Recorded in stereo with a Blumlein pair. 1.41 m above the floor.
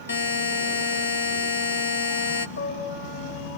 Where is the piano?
65° left, 4.5 m.